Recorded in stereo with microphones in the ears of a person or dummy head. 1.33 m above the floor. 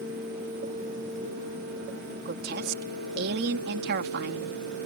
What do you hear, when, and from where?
2.2 s a woman speaking: 60° right (ahead or behind)